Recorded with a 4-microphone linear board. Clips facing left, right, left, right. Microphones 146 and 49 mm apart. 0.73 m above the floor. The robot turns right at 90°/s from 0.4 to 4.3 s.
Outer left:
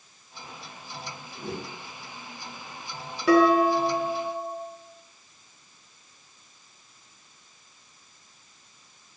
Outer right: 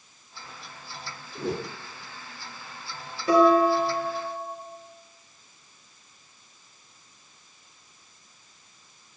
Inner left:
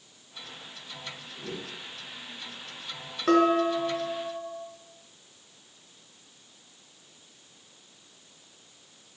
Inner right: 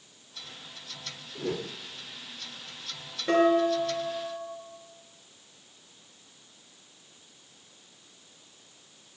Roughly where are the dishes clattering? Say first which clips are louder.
Even, inner left 1 dB; left.